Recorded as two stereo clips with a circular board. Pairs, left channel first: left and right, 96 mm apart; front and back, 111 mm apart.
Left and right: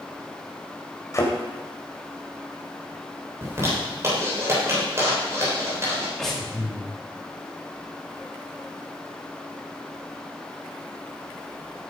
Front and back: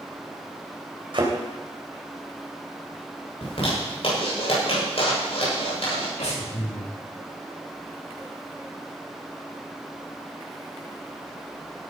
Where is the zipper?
30° right, 7.5 m.